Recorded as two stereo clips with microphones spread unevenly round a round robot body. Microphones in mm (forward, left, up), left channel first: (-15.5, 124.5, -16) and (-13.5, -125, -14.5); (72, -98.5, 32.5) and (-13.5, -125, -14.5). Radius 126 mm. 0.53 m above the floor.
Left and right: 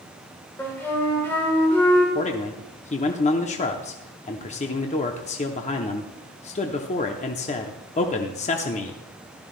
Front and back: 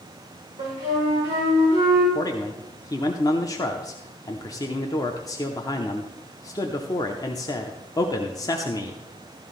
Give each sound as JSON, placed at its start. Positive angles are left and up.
{"t": 0.6, "sound": "a flute", "azimuth_deg": 170, "distance_m": 6.0}
{"t": 2.1, "sound": "a man speaking", "azimuth_deg": 90, "distance_m": 0.7}